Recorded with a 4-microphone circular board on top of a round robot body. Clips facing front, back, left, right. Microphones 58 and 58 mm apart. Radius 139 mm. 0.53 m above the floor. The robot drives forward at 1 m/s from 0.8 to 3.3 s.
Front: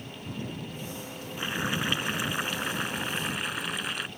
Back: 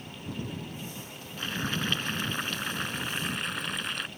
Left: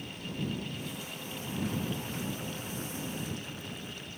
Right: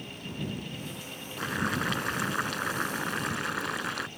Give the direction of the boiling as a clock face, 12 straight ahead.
3 o'clock.